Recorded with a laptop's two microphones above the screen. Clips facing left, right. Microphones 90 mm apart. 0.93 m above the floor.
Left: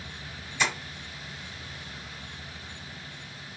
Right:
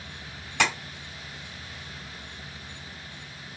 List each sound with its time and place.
0.6 s tapping: 85° right, 2.5 m